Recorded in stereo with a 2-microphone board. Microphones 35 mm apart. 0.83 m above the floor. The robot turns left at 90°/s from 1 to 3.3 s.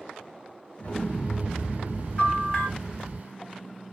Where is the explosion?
35° left, 0.7 m; by 3.2 s 160° right, 0.7 m.